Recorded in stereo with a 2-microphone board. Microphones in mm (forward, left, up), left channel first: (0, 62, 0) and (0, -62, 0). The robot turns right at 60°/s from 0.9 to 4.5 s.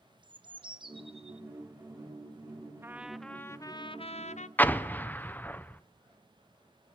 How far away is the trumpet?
About 0.6 m.